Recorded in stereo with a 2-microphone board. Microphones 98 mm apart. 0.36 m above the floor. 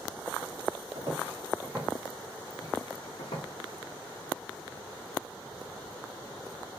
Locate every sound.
0.9 s footsteps: 35° right (ahead or behind), 1.3 m; by 3.5 s 75° left (ahead or behind), 1.0 m